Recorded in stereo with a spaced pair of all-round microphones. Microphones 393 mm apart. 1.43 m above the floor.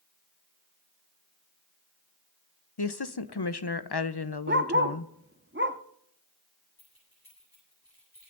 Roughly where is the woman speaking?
Left.